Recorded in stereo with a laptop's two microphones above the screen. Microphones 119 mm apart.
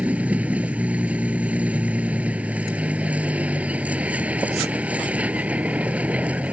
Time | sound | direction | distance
0.0 | a vehicle | 10° right (ahead or behind) | ?